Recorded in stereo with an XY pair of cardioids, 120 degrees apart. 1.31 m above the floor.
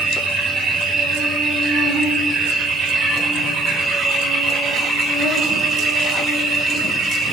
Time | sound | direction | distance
0.0 | an insect | 55° right | 3 m